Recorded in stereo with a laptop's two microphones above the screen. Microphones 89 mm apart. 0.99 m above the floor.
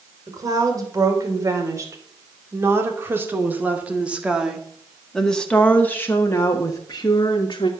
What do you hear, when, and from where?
0.3 s a woman speaking: 40° right (ahead or behind), 4 m; by 7.7 s 55° left (ahead or behind), 2 m